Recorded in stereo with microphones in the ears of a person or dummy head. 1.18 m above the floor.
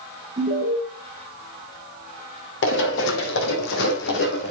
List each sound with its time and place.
0.4 s an alarm: 35° right (ahead or behind), 2.5 m
2.6 s running footsteps: 65° left (ahead or behind), 3.5 m; by 4.5 s 50° left (ahead or behind), 3 m